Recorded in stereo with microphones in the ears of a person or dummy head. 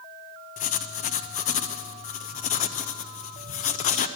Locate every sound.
0.6 s writing: 40° left (ahead or behind), 0.5 m